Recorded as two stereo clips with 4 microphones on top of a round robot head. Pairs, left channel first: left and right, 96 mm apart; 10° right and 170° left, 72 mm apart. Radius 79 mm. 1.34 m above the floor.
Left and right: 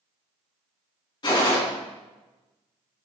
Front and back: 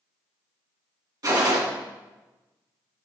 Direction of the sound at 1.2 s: 140° left.